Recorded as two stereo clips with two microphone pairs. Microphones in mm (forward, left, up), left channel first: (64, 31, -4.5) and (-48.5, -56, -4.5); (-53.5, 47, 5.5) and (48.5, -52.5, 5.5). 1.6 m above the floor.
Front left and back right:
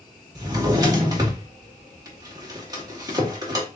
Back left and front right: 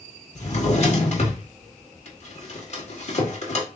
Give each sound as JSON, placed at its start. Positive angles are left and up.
{"t": 0.3, "sound": "a drawer", "azimuth_deg": 160, "distance_m": 1.3}